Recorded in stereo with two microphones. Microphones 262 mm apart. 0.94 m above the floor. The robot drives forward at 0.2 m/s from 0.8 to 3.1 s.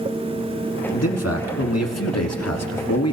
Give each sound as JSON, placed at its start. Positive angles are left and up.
{"t": 0.9, "sound": "a man speaking", "side_deg": 70, "distance_m": 1.4}